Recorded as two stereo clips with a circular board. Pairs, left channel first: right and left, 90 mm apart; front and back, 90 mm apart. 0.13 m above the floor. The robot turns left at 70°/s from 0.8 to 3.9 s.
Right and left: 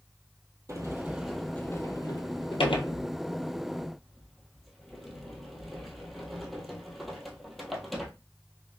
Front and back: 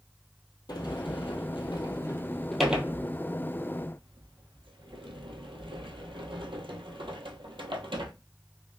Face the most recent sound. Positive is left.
turn(degrees=180)